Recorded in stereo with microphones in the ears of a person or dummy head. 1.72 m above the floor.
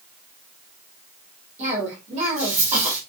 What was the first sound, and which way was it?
A cough, 40° right (ahead or behind).